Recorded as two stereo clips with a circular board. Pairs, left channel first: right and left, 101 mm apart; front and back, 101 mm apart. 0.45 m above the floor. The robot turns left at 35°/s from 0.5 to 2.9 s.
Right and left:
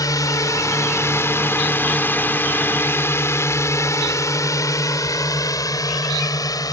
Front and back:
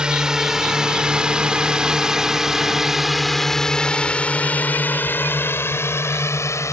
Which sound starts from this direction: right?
A drone, at 0.0 s.